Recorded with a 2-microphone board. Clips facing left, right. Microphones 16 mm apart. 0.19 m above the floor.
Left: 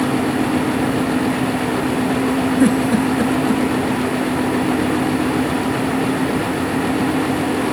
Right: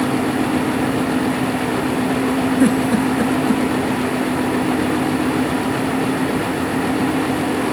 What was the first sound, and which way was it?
A giggle, 10° left (ahead or behind).